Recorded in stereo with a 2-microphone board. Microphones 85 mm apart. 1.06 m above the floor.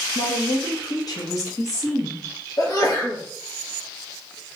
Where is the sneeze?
50° left (ahead or behind), 1.5 m.